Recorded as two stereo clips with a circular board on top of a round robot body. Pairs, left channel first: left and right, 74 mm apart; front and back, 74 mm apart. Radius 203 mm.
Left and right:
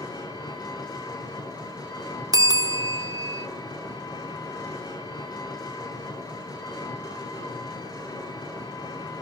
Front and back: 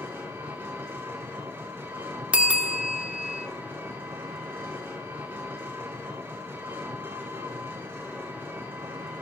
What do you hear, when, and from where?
0.0 s an engine running: 120° left, 6.5 m
2.3 s a bell: 110° right, 1.7 m